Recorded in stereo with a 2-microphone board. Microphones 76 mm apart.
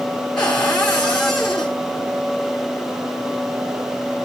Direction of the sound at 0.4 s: 10° left (ahead or behind).